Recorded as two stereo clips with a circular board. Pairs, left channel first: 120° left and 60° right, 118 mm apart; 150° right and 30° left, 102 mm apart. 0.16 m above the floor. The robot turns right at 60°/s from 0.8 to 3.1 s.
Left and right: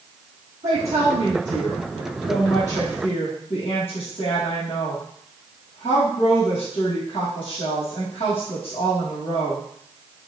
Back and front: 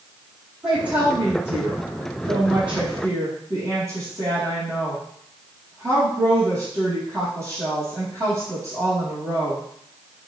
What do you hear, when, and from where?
0.6 s a woman speaking: 50° right, 4 m; by 9.6 s 90° left, 4 m